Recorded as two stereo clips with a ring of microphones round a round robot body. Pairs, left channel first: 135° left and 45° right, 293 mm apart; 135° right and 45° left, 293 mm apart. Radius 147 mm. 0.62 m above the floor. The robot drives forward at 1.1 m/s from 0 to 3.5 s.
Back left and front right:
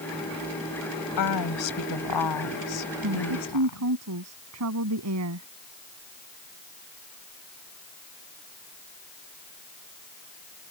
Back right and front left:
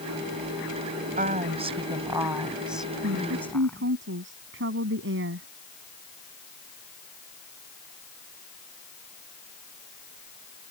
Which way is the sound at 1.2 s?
110° left.